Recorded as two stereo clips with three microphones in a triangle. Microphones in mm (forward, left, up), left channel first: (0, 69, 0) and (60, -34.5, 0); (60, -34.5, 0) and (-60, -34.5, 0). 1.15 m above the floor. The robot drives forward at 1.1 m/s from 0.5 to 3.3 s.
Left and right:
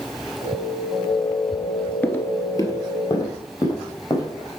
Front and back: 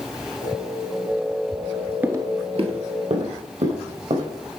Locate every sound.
2.0 s footsteps: 145° left, 1.1 m; by 4.3 s 175° left, 3.5 m